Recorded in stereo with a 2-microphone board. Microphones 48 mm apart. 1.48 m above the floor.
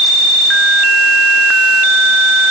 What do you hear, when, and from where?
Only background noise.